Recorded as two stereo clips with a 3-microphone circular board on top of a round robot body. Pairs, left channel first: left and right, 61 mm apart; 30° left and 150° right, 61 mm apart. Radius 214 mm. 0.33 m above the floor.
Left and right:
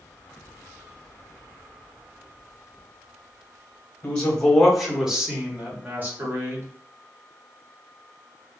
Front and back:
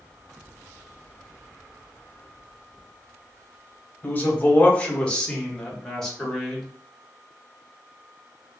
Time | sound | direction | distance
4.0 | a man speaking | 45° left | 1.4 m